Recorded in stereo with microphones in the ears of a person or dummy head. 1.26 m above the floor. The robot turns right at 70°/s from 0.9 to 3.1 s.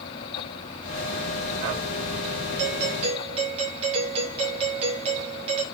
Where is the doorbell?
70° right, 2.5 m; by 5.6 s 35° right, 2.5 m.